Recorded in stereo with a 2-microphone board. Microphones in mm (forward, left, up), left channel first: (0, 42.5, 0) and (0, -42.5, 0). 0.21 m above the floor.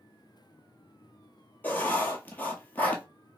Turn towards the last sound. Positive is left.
turn(degrees=20)  # may be behind; listen again after turning